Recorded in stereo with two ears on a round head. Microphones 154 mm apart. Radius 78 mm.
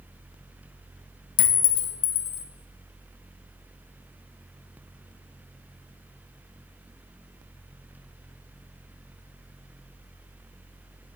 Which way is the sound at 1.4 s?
50° left (ahead or behind).